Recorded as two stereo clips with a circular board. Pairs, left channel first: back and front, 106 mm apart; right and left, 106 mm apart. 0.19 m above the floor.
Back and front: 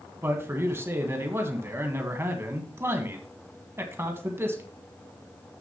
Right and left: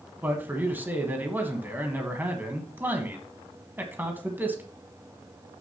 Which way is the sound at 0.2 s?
35° left.